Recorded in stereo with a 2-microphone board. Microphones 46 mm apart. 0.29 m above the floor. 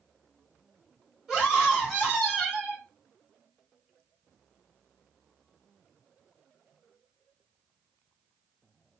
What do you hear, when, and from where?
1.3 s a scream: 15° right (ahead or behind), 1.4 m